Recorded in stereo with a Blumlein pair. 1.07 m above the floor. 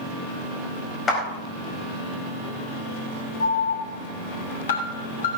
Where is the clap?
25° left, 4.5 m.